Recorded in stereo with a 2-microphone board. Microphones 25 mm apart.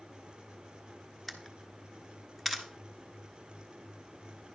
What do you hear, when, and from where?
1.3 s a camera shutter: 5° left (ahead or behind), 1.2 m